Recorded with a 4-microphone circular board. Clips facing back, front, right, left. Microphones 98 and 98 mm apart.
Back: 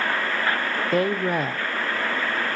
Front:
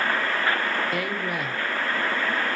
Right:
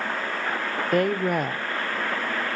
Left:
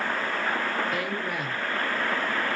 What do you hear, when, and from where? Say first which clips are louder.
0.9 s a woman speaking: back 6 dB, right 8 dB; 130° right, 0.6 m